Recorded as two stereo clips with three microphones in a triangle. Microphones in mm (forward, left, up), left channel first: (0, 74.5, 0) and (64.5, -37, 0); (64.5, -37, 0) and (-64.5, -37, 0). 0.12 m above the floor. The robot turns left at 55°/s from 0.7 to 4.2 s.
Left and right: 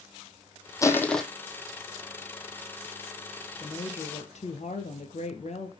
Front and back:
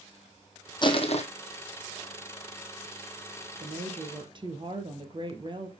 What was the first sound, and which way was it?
Crushing, 55° left.